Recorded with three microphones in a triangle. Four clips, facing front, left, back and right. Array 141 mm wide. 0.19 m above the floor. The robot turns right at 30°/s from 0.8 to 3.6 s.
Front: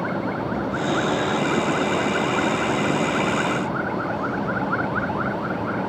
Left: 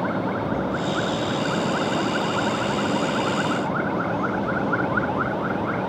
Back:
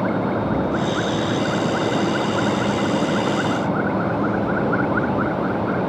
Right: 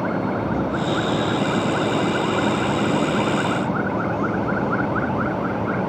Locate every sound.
Only background noise.